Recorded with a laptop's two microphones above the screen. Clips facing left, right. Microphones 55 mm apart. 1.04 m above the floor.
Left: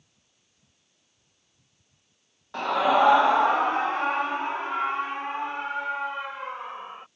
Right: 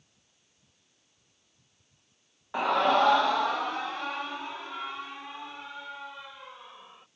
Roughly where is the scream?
Centre.